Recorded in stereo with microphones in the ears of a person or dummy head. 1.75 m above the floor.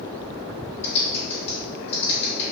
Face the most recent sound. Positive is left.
turn(degrees=35)  # may be behind; listen again after turning